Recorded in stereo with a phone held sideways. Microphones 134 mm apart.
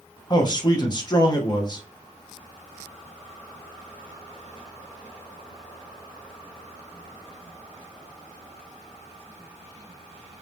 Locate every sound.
0.3 s a man speaking: 30° left (ahead or behind), 0.7 m